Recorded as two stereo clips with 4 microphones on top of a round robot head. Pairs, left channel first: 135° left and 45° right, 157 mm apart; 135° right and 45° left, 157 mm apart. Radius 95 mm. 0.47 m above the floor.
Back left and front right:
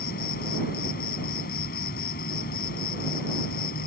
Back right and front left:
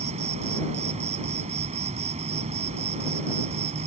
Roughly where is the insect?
Left.